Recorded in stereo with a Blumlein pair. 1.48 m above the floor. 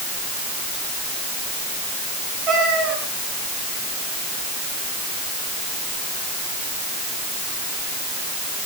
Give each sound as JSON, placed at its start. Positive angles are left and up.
{"t": 2.5, "sound": "a cat meowing", "azimuth_deg": -30, "distance_m": 6.5}